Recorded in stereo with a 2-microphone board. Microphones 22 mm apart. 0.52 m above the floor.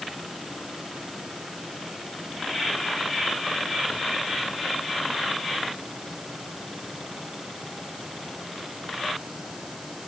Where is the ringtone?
No ringtone in this recording.